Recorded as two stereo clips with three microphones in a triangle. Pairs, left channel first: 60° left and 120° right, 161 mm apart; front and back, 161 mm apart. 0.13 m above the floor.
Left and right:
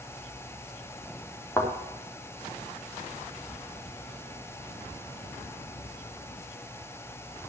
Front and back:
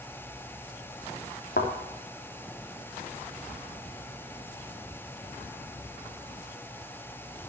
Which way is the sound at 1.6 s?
15° right.